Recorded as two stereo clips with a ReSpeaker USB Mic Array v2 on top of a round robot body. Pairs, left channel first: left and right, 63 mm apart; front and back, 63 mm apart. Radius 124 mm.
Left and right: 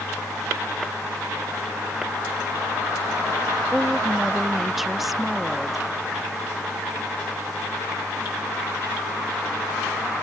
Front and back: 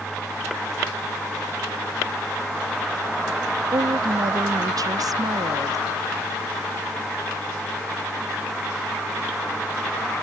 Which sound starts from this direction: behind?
A woman speaking, at 3.7 s.